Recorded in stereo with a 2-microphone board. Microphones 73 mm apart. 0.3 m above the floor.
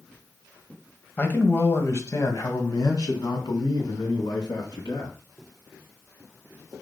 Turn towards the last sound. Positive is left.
turn(degrees=70)  # may be behind; listen again after turning